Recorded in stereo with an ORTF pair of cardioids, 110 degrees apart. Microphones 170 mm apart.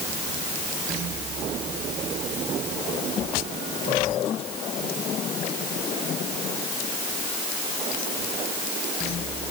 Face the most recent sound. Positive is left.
No sound to turn to.